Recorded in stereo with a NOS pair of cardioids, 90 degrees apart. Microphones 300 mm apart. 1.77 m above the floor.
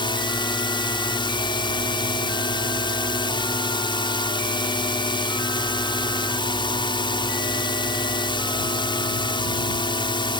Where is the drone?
15° left.